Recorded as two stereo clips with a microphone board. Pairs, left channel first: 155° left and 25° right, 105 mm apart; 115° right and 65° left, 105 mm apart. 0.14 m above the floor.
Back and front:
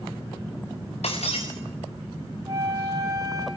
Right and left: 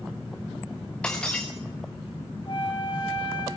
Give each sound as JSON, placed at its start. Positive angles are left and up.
{"t": 1.0, "sound": "breaking glass", "azimuth_deg": 165, "distance_m": 3.5}
{"t": 2.5, "sound": "a flute", "azimuth_deg": -75, "distance_m": 3.5}